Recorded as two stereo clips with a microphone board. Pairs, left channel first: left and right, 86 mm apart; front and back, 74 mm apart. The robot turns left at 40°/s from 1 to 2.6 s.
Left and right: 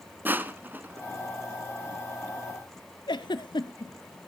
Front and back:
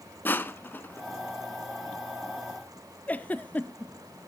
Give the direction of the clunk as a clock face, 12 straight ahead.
I don't hear a clunk.